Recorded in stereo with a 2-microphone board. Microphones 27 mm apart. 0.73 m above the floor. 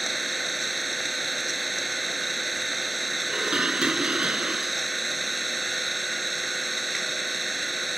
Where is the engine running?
Centre (ahead or behind).